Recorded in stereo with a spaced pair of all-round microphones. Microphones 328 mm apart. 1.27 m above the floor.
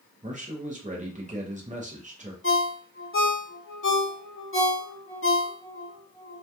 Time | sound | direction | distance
0.2 | a man speaking | 25° right (ahead or behind) | 0.7 m
2.4 | a ringtone | 40° left (ahead or behind) | 0.8 m